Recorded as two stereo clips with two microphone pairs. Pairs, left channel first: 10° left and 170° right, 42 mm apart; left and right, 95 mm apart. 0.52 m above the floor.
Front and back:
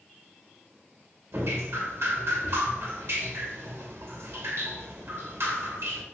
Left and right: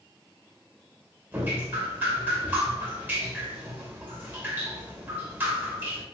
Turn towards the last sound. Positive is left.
turn(degrees=-165)